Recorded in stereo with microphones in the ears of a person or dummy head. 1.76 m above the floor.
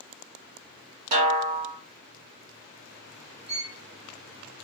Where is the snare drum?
45° right (ahead or behind), 1.8 m.